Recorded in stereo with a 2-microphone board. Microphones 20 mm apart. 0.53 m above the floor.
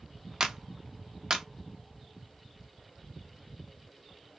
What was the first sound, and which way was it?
A clap, 30° right (ahead or behind).